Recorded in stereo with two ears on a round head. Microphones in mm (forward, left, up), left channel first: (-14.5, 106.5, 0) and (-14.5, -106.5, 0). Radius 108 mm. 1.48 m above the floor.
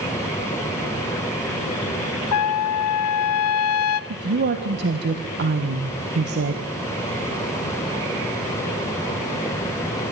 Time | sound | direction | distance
2.3 | a trumpet | 70° left (ahead or behind) | 0.6 m
4.1 | a woman speaking | 50° right (ahead or behind) | 1.6 m